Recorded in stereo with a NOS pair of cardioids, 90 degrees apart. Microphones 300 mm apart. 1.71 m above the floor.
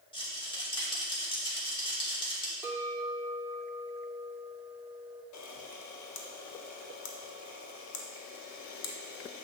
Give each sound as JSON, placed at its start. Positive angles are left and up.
{"t": 0.1, "sound": "a rattle", "azimuth_deg": 15, "distance_m": 2.0}
{"t": 2.6, "sound": "a clink", "azimuth_deg": -5, "distance_m": 2.5}
{"t": 5.3, "sound": "a camera shutter", "azimuth_deg": 65, "distance_m": 1.0}